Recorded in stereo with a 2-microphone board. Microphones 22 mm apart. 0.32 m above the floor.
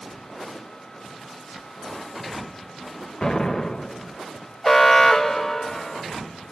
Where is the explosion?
25° left (ahead or behind), 1.0 m.